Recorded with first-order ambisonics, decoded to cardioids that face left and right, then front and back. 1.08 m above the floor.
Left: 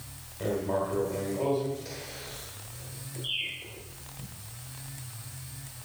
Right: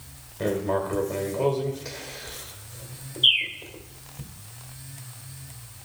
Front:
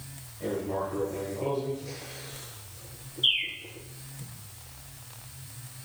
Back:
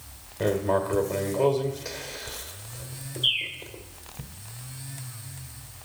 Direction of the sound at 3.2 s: 85° right.